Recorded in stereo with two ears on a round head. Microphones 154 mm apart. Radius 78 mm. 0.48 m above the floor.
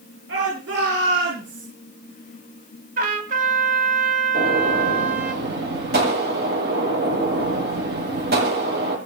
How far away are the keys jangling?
I don't hear keys jangling.